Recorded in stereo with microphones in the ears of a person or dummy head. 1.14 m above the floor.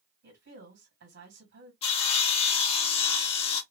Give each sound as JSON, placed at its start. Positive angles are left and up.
{"t": 0.2, "sound": "a woman speaking", "side_deg": -60, "distance_m": 1.7}
{"t": 1.8, "sound": "sawing", "side_deg": 40, "distance_m": 0.7}